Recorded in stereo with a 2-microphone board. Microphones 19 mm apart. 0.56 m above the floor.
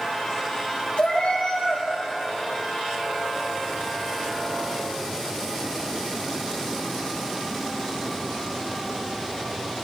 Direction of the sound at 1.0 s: 80° left.